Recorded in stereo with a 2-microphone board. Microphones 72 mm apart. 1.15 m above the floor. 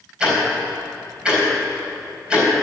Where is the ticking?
15° right (ahead or behind), 4 m.